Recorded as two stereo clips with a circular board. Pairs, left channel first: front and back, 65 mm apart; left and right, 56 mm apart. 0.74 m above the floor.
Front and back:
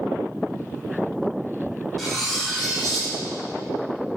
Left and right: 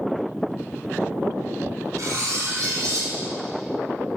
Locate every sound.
2.0 s cutlery clinking: 85° right, 2.5 m